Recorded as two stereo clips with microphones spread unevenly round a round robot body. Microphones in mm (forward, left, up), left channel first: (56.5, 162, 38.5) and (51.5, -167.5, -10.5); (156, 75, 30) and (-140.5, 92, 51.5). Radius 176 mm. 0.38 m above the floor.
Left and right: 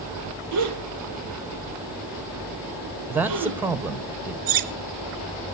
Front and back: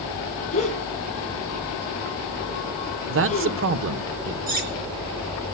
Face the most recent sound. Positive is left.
turn(degrees=-115)